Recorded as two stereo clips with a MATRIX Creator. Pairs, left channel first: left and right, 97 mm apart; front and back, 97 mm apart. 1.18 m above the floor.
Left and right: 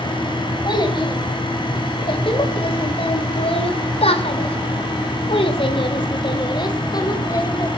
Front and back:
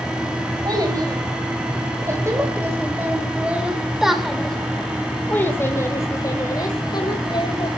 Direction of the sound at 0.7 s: 130° left.